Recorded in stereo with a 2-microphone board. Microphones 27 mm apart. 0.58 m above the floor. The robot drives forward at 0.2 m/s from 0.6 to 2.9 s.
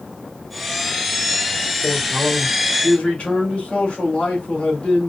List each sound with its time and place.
1.8 s a man speaking: 60° left (ahead or behind), 2 m